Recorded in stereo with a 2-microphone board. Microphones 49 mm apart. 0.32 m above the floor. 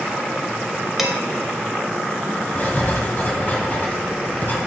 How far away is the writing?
About 1.7 m.